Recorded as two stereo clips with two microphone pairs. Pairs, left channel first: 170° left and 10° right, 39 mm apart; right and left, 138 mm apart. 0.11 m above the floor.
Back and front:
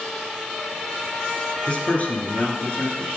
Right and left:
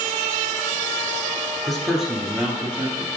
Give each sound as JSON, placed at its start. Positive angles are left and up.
{"t": 1.7, "sound": "a man speaking", "azimuth_deg": 180, "distance_m": 1.1}